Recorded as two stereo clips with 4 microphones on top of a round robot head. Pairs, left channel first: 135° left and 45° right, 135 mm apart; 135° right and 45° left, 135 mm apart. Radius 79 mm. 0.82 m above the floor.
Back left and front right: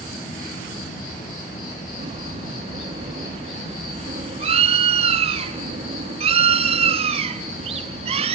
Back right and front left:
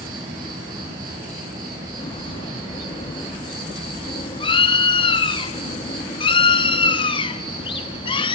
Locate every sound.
0.0 s an insect: 110° left, 9.5 m
2.0 s a bird: 85° right, 1.3 m